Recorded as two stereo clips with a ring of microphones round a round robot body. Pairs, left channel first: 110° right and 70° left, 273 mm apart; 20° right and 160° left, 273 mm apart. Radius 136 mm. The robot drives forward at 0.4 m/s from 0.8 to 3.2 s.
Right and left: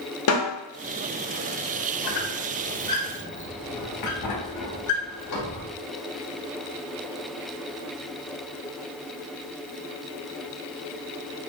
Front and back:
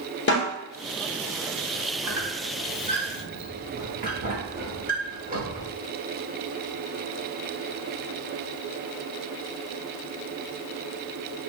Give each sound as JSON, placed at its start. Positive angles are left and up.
{"t": 0.3, "sound": "a snare drum", "azimuth_deg": -75, "distance_m": 1.3}
{"t": 2.0, "sound": "a squeak", "azimuth_deg": -120, "distance_m": 0.9}